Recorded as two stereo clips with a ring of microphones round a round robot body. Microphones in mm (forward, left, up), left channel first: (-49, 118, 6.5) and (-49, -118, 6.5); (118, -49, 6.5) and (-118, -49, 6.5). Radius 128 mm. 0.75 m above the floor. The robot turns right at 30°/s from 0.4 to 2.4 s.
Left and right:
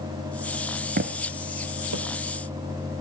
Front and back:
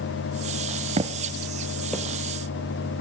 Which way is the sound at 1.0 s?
125° right.